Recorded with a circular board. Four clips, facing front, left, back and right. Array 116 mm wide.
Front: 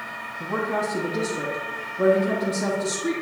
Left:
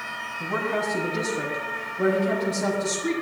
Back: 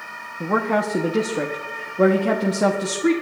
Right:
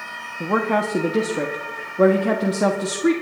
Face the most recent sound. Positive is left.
turn(degrees=-130)